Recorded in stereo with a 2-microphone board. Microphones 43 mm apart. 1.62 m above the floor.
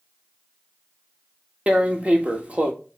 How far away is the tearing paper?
About 1.4 m.